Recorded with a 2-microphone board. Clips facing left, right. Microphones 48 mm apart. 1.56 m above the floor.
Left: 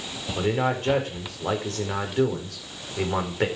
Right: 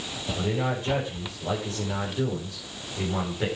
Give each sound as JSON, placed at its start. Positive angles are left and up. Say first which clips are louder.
{"t": 0.4, "sound": "a man speaking", "louder": "left 4 dB", "side_deg": 60, "distance_m": 4.5}